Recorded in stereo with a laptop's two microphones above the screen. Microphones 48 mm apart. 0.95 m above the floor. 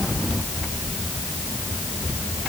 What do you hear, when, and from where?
Only background noise.